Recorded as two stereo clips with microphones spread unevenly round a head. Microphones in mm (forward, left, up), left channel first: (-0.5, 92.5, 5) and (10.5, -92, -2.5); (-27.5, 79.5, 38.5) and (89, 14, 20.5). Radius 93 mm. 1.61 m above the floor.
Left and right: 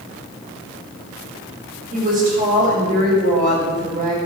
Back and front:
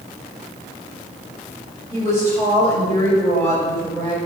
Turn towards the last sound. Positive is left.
turn(degrees=-135)